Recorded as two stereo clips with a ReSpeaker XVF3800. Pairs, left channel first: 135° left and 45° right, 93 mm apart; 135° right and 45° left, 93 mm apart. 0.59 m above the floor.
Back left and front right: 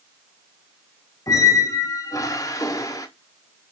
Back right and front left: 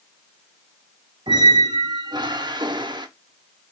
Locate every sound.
1.3 s a squeak: 85° left, 0.6 m